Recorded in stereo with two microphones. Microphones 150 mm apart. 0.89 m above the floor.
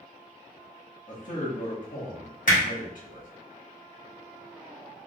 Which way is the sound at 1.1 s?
60° left (ahead or behind).